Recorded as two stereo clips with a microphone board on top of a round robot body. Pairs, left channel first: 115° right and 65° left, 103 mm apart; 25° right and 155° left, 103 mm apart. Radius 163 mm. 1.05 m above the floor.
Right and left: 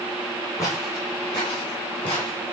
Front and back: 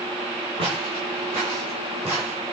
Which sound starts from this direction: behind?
Footsteps, at 0.6 s.